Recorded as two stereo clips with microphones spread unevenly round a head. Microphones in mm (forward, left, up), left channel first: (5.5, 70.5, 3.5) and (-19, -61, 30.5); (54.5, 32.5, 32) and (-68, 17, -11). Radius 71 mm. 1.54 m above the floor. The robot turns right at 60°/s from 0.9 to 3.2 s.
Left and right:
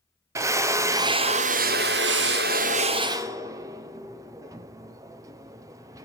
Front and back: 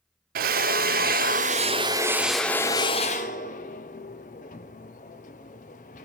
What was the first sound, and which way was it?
A drill, 170° right.